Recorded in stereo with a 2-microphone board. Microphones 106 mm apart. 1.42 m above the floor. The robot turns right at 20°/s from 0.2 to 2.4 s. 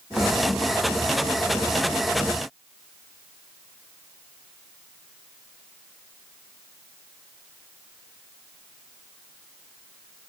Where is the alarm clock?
No alarm clock in this recording.